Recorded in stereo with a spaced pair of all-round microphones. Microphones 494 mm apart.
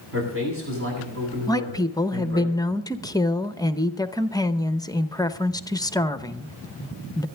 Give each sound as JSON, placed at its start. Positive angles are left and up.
{"t": 0.1, "sound": "a man speaking", "side_deg": -25, "distance_m": 8.5}
{"t": 1.5, "sound": "a woman speaking", "side_deg": 10, "distance_m": 0.7}